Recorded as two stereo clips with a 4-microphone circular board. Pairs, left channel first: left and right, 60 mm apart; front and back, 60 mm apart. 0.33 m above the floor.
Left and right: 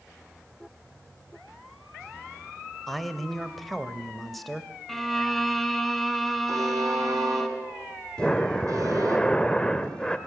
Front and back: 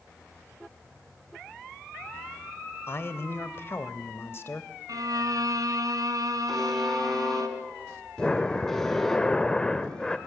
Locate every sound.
2.9 s a man speaking: straight ahead, 1.2 m
4.9 s a violin: 175° left, 1.6 m
6.5 s a buzzer: 85° right, 3.5 m
8.2 s breathing: 45° left, 1.0 m